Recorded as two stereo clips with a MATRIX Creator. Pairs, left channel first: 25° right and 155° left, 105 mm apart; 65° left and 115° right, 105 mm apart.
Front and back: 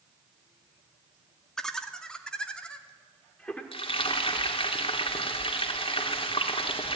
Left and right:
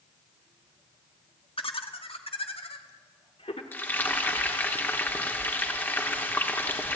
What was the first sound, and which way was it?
Laughter, 60° left.